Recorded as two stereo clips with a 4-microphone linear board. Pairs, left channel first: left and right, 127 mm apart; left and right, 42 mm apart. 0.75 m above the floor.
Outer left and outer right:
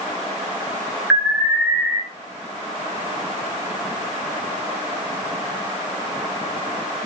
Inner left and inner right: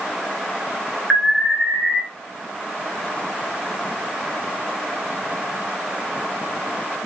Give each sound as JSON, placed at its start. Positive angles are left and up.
{"t": 1.1, "sound": "an alarm", "side_deg": -5, "distance_m": 2.0}